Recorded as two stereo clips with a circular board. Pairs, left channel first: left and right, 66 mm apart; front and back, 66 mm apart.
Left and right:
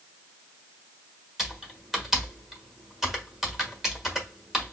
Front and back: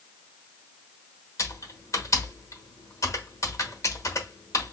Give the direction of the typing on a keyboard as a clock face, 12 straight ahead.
12 o'clock.